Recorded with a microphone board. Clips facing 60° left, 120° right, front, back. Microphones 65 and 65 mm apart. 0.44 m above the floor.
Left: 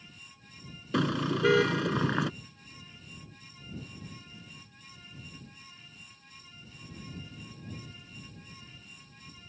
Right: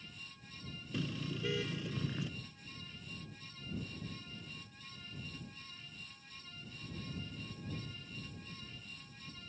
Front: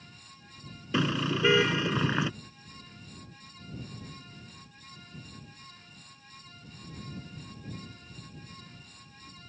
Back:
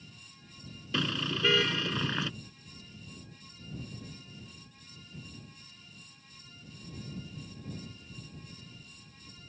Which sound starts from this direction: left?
A car horn, at 0.9 s.